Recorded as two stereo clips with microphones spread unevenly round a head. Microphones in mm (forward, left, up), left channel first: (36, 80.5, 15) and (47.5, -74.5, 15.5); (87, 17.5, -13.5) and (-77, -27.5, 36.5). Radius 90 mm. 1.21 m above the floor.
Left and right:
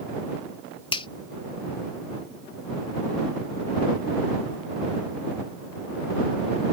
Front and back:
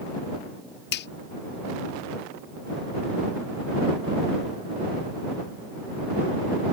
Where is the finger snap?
40° left.